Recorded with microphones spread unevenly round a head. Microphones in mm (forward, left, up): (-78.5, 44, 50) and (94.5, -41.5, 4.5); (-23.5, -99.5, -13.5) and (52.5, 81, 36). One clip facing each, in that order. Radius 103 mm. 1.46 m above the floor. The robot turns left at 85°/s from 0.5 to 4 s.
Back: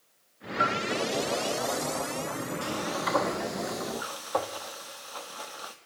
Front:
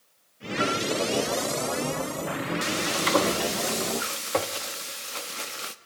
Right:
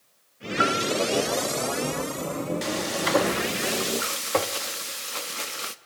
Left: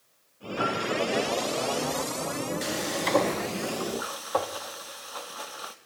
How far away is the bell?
About 3 m.